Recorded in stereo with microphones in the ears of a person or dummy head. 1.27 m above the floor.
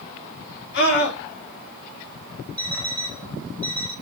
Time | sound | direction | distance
0.7 | a scream | 65° left (ahead or behind) | 2.5 m
2.6 | an alarm clock | 15° right (ahead or behind) | 1.4 m